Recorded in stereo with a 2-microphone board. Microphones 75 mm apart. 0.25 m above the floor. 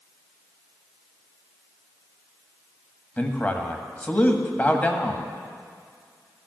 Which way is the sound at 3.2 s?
20° left (ahead or behind).